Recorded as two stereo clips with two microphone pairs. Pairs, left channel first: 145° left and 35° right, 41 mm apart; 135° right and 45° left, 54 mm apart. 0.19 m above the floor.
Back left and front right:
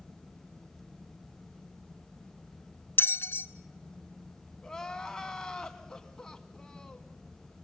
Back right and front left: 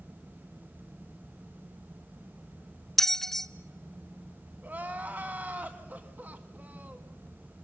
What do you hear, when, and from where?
3.0 s a bell: 140° left, 0.5 m
4.6 s crying: 75° left, 1.5 m